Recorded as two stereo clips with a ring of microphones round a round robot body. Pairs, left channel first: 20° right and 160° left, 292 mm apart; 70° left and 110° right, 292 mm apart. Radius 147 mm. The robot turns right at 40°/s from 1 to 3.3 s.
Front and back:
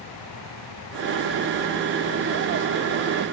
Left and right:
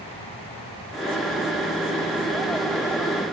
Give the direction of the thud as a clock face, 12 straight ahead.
No thud in this recording.